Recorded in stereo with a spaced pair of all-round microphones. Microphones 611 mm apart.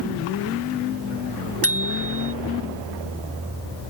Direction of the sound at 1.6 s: 25° left (ahead or behind).